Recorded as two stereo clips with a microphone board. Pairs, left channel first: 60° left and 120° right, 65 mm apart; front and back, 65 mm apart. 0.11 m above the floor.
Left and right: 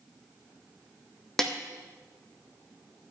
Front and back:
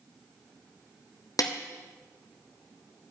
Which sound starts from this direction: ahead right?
A snare drum, at 1.4 s.